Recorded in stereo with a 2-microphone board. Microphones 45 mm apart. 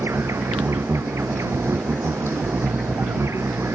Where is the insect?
85° right.